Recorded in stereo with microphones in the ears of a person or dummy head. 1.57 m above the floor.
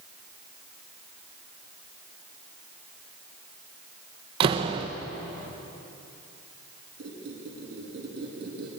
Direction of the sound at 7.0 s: 70° right (ahead or behind).